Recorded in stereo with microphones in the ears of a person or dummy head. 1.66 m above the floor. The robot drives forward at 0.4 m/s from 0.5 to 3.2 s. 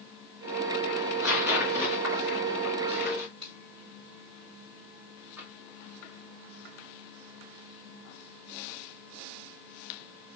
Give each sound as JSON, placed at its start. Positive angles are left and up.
{"t": 1.0, "sound": "tearing paper", "side_deg": -20, "distance_m": 1.8}
{"t": 3.4, "sound": "a finger snap", "side_deg": -40, "distance_m": 3.0}
{"t": 5.4, "sound": "tapping", "side_deg": -15, "distance_m": 2.5}